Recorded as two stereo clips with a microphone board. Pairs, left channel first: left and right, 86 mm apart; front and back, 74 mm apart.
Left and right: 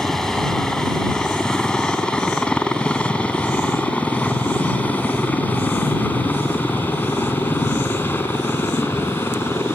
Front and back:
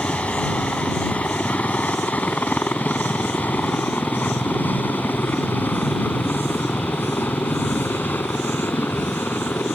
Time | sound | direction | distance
0.0 | a helicopter | 15° left | ?